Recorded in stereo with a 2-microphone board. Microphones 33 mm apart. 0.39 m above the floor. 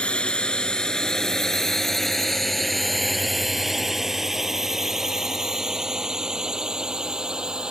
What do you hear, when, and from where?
0.0 s a drone: 35° left (ahead or behind); by 7.7 s 20° right (ahead or behind)